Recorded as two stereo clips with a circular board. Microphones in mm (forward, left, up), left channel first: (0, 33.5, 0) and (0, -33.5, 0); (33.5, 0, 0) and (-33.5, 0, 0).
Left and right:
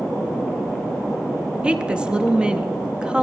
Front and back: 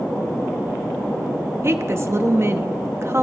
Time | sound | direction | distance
1.6 | a woman speaking | 160° right | 0.6 m